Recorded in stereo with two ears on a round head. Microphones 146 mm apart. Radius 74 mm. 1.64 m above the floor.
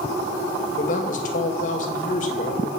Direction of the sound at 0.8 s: 45° left (ahead or behind).